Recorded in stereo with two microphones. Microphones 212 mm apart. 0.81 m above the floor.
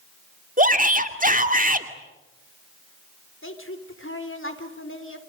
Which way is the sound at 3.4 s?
70° left (ahead or behind).